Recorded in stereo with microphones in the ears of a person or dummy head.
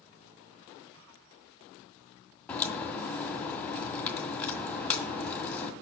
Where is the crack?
15° left (ahead or behind), 1.9 m.